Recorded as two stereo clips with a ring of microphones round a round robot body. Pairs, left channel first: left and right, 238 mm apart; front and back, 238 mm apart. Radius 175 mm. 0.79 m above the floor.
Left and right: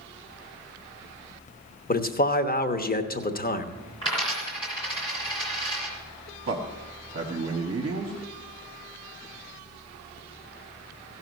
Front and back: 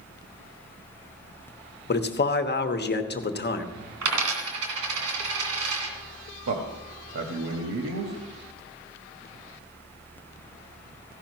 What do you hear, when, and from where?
1.9 s a man speaking: 40° left, 1.3 m
4.0 s a dropped coin: 170° left, 2.5 m
6.5 s a man speaking: 145° right, 1.0 m